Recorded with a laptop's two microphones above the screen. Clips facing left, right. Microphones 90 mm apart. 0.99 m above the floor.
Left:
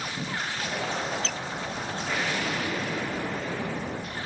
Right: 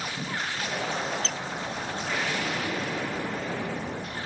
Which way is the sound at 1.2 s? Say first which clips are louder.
Even; 45° right (ahead or behind).